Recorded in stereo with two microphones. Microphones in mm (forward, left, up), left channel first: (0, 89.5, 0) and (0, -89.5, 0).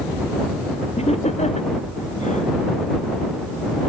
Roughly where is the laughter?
Left.